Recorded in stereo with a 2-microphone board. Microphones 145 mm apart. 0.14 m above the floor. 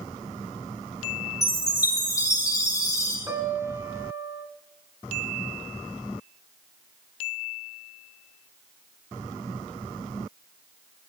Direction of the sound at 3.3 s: 15° right (ahead or behind).